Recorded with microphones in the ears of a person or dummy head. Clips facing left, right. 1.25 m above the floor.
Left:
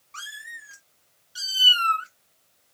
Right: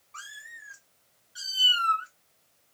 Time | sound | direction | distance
0.1 | a cat meowing | 45° left (ahead or behind) | 2.5 m